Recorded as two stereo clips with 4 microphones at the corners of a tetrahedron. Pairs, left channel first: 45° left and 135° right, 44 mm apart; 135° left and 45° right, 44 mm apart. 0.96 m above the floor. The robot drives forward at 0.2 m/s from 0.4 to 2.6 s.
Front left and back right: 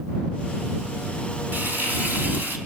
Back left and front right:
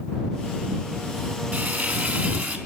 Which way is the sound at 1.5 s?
90° right.